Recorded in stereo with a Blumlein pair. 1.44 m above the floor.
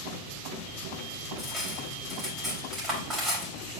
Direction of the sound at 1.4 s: 15° right.